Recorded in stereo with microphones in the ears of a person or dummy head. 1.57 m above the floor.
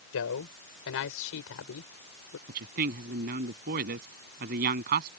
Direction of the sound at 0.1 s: 70° left (ahead or behind).